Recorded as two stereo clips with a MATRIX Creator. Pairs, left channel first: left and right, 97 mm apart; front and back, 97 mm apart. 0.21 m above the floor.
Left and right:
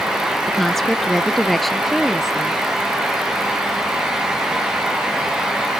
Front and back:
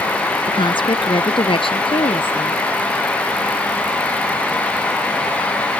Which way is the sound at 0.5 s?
5° left.